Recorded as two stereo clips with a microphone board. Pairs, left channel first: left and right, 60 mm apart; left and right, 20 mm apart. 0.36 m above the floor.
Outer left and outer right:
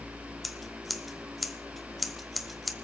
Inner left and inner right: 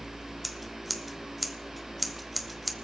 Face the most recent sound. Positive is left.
turn(degrees=0)  # may be behind; listen again after turning